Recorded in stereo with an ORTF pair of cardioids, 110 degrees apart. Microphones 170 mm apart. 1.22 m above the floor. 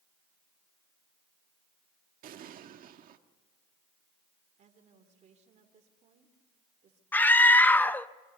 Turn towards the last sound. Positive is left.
turn(degrees=10)